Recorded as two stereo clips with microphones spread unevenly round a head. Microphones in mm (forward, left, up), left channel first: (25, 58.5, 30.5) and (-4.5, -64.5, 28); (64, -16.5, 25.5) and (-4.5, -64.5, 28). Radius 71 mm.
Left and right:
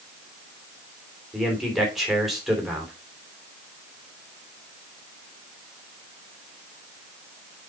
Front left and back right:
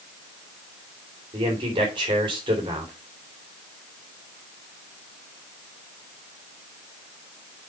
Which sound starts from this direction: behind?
A man speaking, at 1.3 s.